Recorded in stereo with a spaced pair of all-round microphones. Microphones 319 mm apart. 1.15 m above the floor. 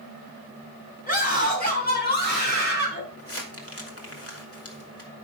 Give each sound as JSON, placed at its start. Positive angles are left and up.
{"t": 1.1, "sound": "a scream", "side_deg": 25, "distance_m": 6.0}
{"t": 3.2, "sound": "crumpling", "side_deg": 45, "distance_m": 2.0}